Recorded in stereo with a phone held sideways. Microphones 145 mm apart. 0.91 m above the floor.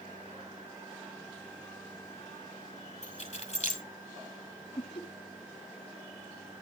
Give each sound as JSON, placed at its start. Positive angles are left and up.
{"t": 3.0, "sound": "keys jangling", "side_deg": 55, "distance_m": 2.0}
{"t": 4.8, "sound": "laughter", "side_deg": 35, "distance_m": 1.5}